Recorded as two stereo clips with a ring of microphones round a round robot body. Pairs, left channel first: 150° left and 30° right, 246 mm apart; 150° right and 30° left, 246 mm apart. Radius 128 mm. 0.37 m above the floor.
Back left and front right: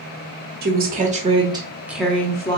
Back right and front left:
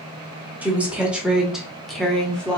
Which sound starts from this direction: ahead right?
A woman speaking, at 0.6 s.